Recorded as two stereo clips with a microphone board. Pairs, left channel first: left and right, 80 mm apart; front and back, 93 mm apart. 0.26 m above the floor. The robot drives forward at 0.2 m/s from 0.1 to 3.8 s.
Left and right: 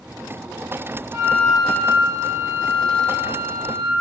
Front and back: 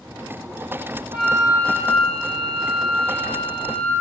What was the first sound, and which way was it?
A flute, 140° right.